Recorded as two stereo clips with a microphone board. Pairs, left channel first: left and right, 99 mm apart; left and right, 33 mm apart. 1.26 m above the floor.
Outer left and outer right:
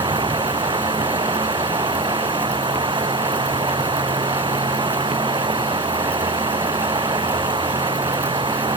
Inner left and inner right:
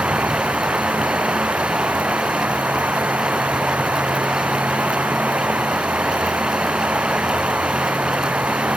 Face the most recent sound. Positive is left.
turn(degrees=-55)  # may be behind; listen again after turning